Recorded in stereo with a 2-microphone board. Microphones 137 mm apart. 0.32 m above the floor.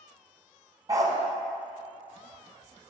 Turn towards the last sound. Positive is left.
turn(degrees=-30)  # may be behind; listen again after turning